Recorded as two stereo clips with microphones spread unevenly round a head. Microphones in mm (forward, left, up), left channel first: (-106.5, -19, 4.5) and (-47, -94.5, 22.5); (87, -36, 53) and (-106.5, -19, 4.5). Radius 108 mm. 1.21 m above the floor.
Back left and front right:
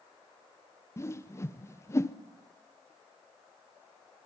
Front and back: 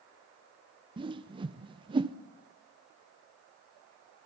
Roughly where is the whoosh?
Behind left.